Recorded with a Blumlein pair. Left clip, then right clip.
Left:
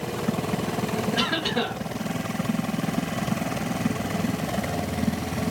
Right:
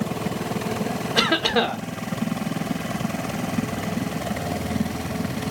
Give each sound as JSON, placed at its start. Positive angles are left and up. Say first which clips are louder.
{"t": 1.2, "sound": "a cough", "louder": "right 7 dB", "azimuth_deg": -40, "distance_m": 1.1}